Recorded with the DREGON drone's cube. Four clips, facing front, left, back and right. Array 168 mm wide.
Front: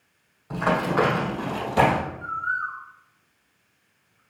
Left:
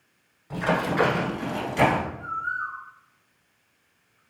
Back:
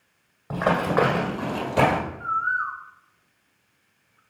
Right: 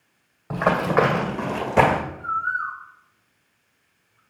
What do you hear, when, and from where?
0.5 s running footsteps: 130° right, 2.0 m; by 2.0 s 85° right, 1.9 m
2.2 s a bird: 155° right, 1.4 m